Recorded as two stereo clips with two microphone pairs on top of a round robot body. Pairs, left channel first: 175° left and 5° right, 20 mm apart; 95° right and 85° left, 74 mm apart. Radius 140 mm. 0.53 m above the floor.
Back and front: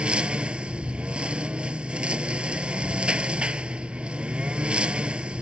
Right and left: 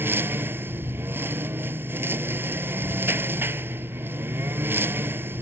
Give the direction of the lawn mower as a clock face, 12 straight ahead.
11 o'clock.